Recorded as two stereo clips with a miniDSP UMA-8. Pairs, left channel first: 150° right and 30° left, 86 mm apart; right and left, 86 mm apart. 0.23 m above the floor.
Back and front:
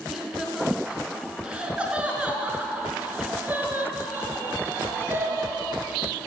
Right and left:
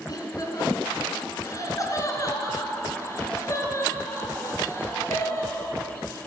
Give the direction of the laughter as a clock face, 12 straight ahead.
2 o'clock.